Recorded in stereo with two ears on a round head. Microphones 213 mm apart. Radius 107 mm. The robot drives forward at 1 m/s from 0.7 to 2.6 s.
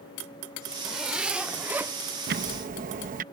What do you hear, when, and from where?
0.7 s a zipper: 5° right (ahead or behind); by 1.9 s 10° right (ahead or behind)
2.3 s ticking: 45° right (ahead or behind); by 3.2 s 35° right (ahead or behind)